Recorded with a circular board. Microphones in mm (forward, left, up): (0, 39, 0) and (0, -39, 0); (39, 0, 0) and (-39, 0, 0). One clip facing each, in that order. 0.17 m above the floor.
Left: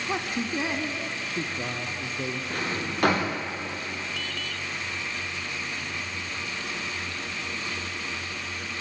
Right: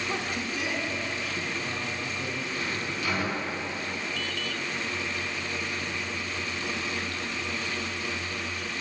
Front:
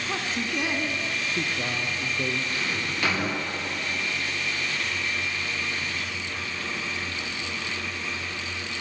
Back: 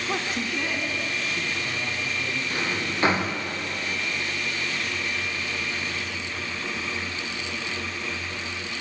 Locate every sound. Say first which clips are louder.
0.1 s a man speaking: left 6 dB, back 1 dB; 130° left, 1.3 m; by 2.4 s 35° left, 3 m
2.5 s a drawer: left 2 dB, back 2 dB; 120° left, 5 m